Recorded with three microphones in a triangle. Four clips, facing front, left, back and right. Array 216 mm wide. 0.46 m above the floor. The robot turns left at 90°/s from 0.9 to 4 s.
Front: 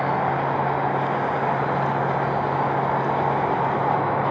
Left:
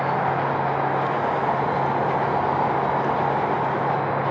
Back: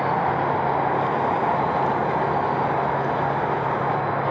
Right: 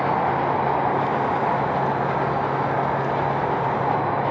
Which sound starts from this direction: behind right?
An insect, at 0.0 s.